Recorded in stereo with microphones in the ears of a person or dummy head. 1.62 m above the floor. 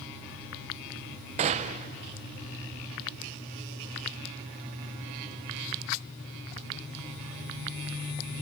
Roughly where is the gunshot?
Right.